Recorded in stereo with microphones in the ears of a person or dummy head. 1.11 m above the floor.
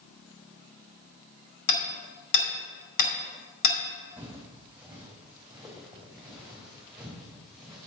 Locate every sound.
1.7 s hammering: 65° left (ahead or behind), 2.5 m
4.2 s footsteps: 10° right (ahead or behind), 3 m; by 7.9 s centre (ahead or behind), 5 m